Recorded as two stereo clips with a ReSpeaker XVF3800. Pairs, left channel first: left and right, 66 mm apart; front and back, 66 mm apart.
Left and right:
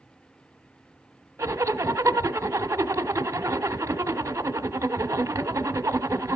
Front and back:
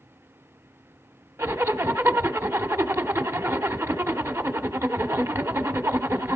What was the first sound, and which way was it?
A zipper, 130° right.